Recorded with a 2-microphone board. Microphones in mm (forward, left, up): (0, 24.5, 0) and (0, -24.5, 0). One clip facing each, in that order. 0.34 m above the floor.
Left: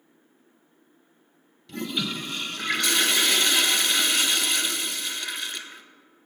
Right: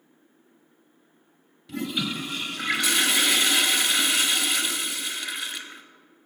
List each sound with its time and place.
1.7 s a toilet flushing: 10° right (ahead or behind), 0.9 m